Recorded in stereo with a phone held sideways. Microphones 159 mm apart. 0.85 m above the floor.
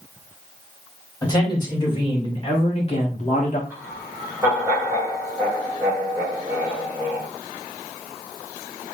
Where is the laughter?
15° right (ahead or behind), 3 m.